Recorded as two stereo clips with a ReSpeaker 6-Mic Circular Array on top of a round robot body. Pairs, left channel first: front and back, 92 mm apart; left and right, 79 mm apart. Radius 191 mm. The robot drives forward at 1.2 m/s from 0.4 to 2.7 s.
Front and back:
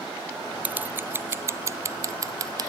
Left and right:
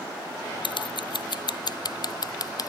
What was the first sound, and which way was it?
Scissors, 105° left.